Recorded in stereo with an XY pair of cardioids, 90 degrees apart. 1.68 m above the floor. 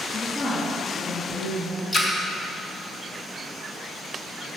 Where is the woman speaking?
40° left, 3.5 m.